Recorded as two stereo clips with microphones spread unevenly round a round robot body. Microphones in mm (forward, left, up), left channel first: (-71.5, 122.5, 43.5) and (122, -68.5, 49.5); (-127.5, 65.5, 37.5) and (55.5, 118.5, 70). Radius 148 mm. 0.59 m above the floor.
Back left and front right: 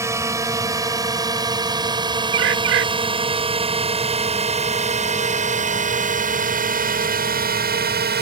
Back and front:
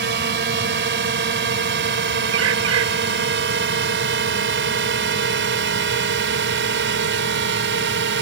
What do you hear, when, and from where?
0.0 s a drone: 35° left; by 8.2 s 5° left
2.3 s a bird: straight ahead